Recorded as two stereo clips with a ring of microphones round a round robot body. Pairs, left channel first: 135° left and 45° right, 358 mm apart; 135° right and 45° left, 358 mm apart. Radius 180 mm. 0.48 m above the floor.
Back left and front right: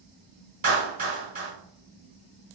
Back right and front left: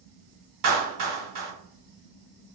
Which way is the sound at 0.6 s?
15° left.